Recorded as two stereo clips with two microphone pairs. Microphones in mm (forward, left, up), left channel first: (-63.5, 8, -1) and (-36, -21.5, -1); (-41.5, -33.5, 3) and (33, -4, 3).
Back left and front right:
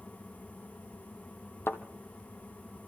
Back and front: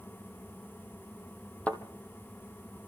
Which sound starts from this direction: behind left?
A thud, at 1.7 s.